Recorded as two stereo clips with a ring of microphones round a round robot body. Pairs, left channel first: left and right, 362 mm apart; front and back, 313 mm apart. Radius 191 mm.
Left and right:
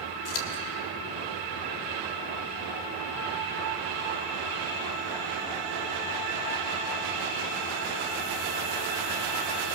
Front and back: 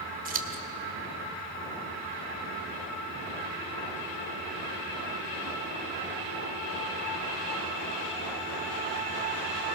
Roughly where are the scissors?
Behind left.